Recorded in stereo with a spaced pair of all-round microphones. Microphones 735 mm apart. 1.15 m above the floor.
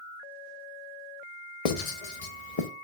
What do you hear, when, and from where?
1.6 s writing: 55° left (ahead or behind), 0.8 m